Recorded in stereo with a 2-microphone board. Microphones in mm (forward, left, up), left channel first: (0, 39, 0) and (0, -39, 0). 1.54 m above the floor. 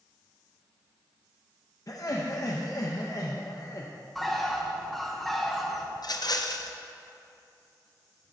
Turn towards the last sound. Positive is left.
turn(degrees=65)  # may be behind; listen again after turning